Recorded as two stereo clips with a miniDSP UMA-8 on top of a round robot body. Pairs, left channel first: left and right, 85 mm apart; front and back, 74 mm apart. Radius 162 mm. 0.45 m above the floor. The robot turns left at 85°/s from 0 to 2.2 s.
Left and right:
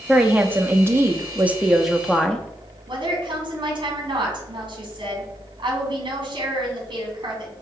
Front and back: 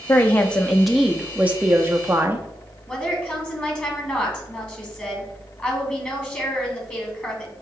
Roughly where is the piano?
I don't hear a piano.